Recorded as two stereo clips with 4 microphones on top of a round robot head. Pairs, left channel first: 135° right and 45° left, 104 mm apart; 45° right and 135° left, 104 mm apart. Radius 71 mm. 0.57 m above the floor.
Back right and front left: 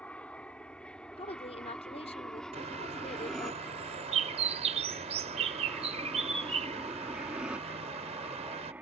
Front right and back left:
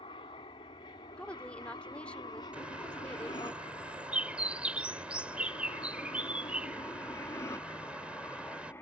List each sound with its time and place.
0.0 s an aircraft: 60° right; by 8.8 s 10° right
1.2 s a woman speaking: 125° right
2.5 s a bird: 55° left